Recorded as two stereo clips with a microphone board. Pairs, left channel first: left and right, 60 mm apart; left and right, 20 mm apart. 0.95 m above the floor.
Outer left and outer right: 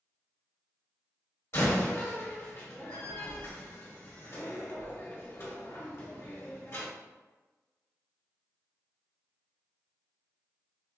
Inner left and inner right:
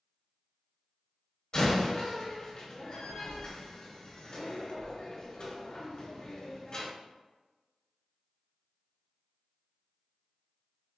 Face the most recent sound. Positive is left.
turn(degrees=45)  # may be behind; listen again after turning